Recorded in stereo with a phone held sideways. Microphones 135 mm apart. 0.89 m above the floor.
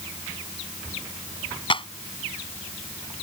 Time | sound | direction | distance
1.7 | a clap | 40° left (ahead or behind) | ?